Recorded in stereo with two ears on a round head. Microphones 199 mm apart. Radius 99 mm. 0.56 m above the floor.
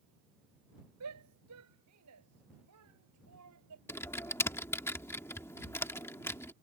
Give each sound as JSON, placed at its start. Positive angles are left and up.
{"t": 1.0, "sound": "a shout", "side_deg": -85}
{"t": 3.9, "sound": "typing on a keyboard", "side_deg": 10}